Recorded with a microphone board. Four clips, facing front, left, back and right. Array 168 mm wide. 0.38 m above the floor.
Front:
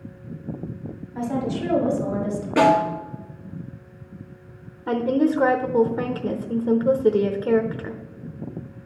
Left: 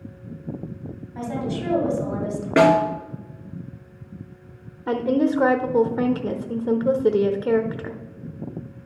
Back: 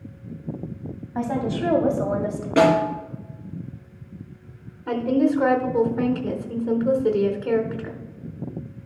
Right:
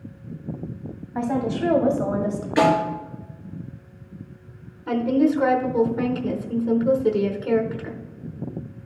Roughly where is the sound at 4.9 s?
Ahead left.